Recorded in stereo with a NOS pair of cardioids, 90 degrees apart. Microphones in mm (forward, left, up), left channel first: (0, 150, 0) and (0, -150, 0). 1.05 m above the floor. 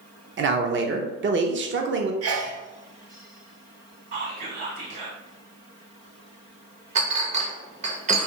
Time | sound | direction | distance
0.4 | a man speaking | 40° right | 0.6 m
2.2 | a sneeze | 50° right | 0.9 m
4.1 | whispering | 45° right | 1.3 m
7.0 | a clink | 25° right | 0.6 m